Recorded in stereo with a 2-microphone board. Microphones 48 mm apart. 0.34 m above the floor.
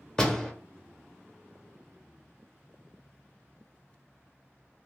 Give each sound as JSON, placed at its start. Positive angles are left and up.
{"t": 0.2, "sound": "a door slam", "side_deg": 15, "distance_m": 0.7}